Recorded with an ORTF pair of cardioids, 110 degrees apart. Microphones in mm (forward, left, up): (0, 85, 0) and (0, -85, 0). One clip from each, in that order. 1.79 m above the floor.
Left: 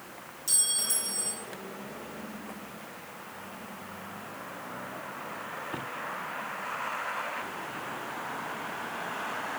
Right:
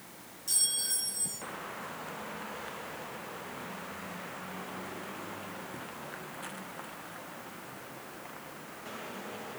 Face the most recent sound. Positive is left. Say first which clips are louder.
# left 2 dB
turn(degrees=35)